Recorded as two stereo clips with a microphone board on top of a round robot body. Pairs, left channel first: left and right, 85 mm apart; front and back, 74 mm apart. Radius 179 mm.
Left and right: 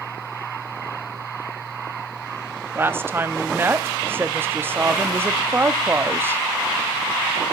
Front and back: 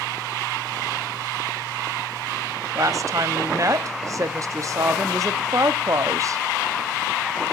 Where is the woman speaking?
150° right, 1.0 m.